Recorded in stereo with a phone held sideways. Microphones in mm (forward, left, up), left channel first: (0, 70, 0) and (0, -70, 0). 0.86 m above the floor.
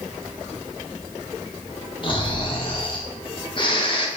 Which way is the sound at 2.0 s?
35° left (ahead or behind).